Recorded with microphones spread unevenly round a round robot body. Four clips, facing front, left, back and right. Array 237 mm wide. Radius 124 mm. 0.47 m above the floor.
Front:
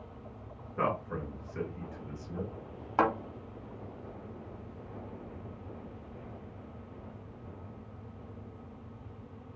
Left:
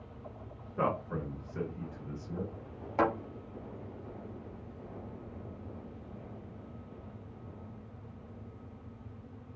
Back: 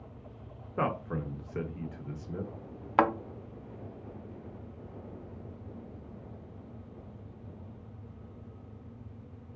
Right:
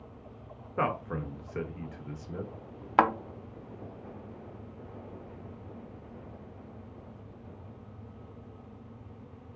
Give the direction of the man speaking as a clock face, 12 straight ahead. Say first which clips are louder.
Right 1 dB, even; 5 o'clock.